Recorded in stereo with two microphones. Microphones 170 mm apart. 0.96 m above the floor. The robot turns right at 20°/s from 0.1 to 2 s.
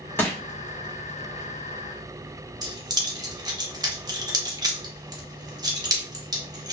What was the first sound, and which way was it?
Crushing, 10° left (ahead or behind).